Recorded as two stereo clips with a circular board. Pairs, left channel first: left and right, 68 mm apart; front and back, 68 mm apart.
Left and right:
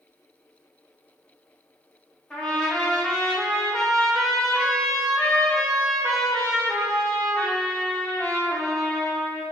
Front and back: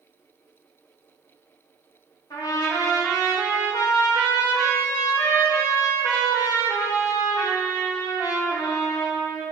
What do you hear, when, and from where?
2.3 s a trumpet: 15° left, 1.9 m